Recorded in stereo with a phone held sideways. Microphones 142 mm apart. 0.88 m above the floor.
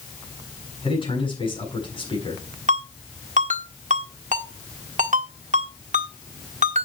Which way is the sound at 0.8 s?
35° left (ahead or behind).